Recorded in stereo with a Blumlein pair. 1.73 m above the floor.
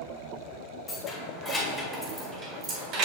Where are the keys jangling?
15° left, 2 m; by 3.1 s 40° right, 1.5 m.